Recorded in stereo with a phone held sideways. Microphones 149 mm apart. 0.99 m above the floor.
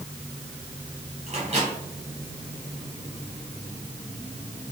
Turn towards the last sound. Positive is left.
turn(degrees=-45)  # may be behind; listen again after turning